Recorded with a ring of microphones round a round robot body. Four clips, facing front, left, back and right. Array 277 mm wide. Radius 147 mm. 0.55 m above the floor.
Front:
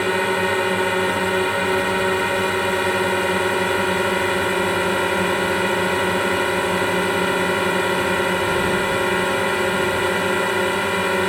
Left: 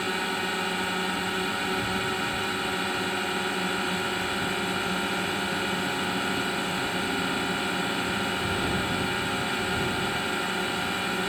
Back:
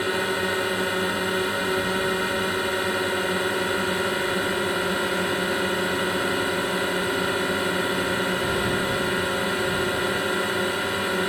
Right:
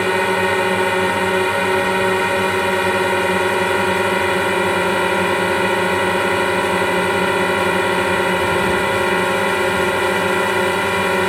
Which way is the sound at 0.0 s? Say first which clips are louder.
Right 13 dB, front 5 dB; 70° right.